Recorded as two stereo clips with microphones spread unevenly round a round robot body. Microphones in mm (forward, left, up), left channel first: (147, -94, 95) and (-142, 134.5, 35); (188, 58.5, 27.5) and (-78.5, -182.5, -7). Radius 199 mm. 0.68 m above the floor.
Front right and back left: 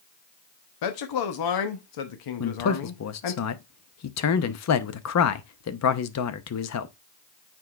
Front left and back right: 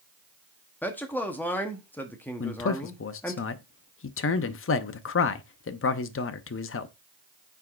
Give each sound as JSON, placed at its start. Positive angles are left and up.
{"t": 0.8, "sound": "a man speaking", "azimuth_deg": -45, "distance_m": 1.0}
{"t": 2.4, "sound": "a man speaking", "azimuth_deg": 0, "distance_m": 0.8}